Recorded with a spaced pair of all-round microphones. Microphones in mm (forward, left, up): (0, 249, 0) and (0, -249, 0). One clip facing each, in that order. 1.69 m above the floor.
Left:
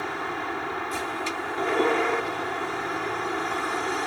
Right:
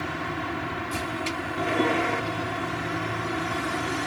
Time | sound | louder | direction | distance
0.0 | a vehicle | right 1 dB | 45° right (ahead or behind) | ?